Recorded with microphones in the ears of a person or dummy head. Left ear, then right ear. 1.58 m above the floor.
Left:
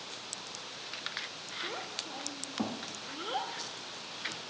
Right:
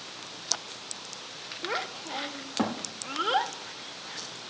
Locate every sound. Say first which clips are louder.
1.6 s a child speaking: right 8 dB; 45° right (ahead or behind), 1.2 m